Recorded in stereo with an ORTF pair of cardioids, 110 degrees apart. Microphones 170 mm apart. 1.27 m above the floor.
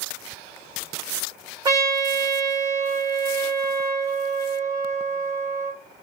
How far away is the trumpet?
About 1.3 m.